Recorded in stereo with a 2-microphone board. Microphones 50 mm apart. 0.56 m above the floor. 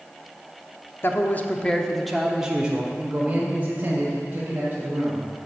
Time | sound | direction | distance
1.0 | a man speaking | 45° left (ahead or behind) | 0.8 m